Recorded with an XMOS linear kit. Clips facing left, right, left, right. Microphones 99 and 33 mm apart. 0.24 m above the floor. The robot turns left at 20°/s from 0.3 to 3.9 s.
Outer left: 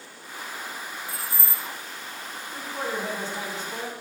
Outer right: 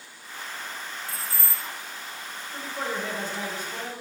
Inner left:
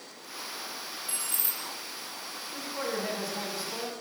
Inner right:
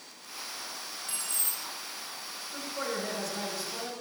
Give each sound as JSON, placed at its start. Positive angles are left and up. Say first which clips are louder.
{"t": 1.1, "sound": "keys jangling", "louder": "outer left 1 dB, inner right 1 dB", "side_deg": 15, "distance_m": 0.8}
{"t": 2.5, "sound": "a man speaking", "louder": "outer left 1 dB, inner left 1 dB", "side_deg": 40, "distance_m": 1.8}